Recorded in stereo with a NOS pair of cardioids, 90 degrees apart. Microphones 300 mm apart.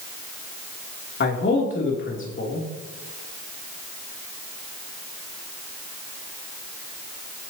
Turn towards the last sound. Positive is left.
turn(degrees=40)